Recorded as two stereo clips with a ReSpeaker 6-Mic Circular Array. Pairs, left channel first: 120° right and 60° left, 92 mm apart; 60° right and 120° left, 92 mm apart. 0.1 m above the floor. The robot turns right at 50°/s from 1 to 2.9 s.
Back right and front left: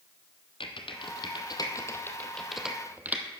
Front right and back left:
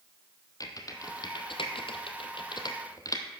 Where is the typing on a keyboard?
105° right, 1.1 m; by 3.2 s 10° right, 1.1 m.